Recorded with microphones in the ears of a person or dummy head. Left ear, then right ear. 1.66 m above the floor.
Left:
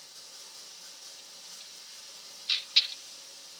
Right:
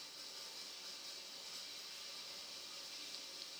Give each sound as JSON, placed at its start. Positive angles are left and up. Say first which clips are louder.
{"t": 0.0, "sound": "running water", "louder": "left 3 dB", "side_deg": 70, "distance_m": 4.5}